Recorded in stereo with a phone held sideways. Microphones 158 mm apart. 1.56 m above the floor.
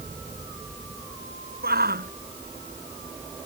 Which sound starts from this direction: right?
A shout, at 1.6 s.